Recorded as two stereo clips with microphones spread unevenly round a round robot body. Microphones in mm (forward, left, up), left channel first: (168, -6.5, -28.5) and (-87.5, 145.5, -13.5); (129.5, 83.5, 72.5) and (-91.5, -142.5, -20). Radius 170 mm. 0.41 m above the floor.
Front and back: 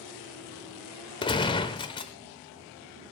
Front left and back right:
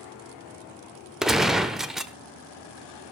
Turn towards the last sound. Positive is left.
turn(degrees=-80)